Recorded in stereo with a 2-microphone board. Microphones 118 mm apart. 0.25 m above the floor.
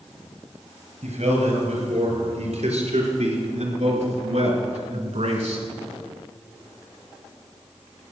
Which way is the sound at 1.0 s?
70° right (ahead or behind).